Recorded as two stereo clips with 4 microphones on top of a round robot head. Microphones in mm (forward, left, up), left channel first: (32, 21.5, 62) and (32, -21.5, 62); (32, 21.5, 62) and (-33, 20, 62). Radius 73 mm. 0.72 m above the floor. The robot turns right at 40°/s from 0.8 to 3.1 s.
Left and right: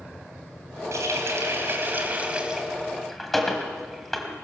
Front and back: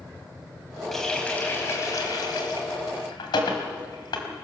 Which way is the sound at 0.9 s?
85° right.